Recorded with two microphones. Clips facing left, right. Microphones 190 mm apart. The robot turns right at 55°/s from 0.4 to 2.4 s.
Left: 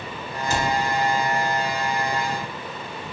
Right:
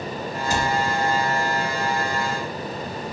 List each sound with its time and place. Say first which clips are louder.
0.5 s a cupboard door: even; 15° right (ahead or behind), 0.6 m; by 0.7 s 10° right (ahead or behind), 0.6 m